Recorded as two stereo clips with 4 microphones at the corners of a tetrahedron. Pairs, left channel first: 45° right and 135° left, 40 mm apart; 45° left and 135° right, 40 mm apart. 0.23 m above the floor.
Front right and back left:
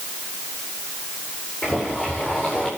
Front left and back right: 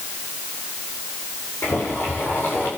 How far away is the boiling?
About 8.5 m.